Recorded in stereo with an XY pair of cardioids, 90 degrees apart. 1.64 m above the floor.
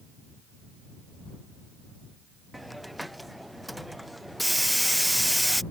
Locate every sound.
2.5 s a hiss: straight ahead